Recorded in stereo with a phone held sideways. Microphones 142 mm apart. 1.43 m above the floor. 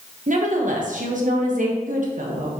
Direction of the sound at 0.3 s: 65° right (ahead or behind).